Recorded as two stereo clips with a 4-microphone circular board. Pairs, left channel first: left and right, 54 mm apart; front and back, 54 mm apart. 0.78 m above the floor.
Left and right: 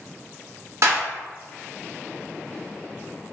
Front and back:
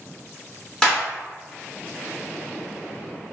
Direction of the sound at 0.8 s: 75° right.